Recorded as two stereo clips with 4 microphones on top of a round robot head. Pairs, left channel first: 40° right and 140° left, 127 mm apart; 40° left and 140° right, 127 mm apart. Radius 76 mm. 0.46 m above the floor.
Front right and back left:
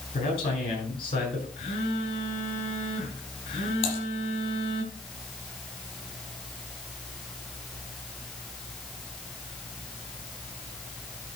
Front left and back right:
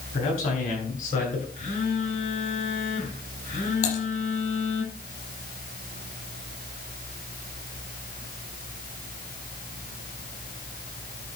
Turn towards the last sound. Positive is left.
turn(degrees=5)